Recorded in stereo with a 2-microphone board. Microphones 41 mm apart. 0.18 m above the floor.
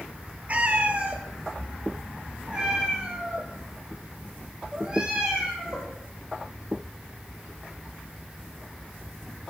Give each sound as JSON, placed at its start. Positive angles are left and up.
{"t": 0.5, "sound": "a cat meowing", "side_deg": -35, "distance_m": 1.4}